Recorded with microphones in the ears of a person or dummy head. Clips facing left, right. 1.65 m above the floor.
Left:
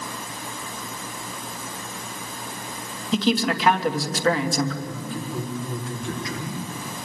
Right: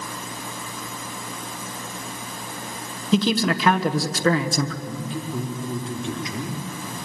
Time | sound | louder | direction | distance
3.1 | a man speaking | right 1 dB | 80° right | 1.8 m
4.8 | a man speaking | right 1 dB | 20° right (ahead or behind) | 4 m